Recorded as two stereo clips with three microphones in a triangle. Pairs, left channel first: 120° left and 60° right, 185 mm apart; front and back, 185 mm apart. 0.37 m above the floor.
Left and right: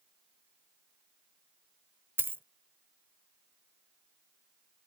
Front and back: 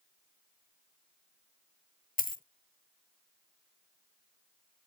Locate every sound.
2.2 s a dropped coin: 15° left